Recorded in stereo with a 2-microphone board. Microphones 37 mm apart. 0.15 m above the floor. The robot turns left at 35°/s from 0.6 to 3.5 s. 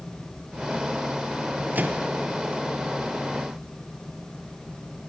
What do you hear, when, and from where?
1.8 s a microwave: 55° right (ahead or behind), 2 m; by 2.1 s 40° right (ahead or behind), 2 m